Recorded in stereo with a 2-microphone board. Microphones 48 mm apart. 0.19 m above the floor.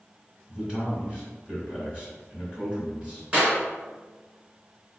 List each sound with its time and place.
0.5 s a man speaking: 20° right (ahead or behind), 1.6 m
3.3 s a clap: 25° right (ahead or behind), 1.7 m